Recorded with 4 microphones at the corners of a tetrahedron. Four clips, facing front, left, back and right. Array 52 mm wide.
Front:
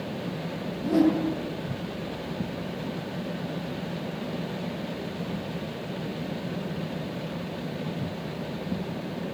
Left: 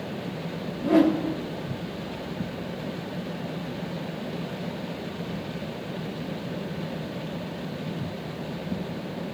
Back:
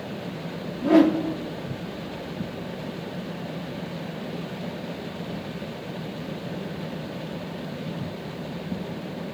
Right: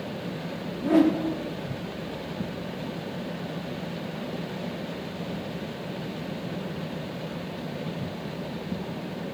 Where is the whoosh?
170° right, 3.5 m.